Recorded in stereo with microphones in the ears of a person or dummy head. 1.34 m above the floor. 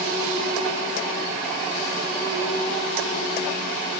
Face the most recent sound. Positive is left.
No sound to turn to.